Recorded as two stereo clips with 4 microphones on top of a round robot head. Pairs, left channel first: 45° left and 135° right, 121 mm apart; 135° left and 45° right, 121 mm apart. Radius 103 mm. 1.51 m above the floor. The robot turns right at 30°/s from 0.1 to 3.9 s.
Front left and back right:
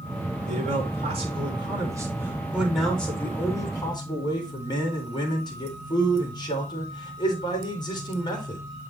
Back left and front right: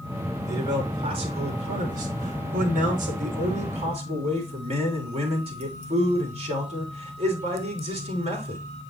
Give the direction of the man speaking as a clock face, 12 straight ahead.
4 o'clock.